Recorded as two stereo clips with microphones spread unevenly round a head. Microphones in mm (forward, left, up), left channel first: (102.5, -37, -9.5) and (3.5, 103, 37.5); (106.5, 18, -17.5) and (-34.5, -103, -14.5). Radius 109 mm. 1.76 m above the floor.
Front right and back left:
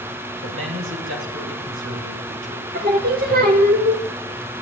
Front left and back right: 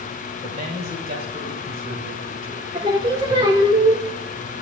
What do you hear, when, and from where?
0.4 s a man speaking: 155° left, 7 m
2.7 s singing: 150° left, 2.5 m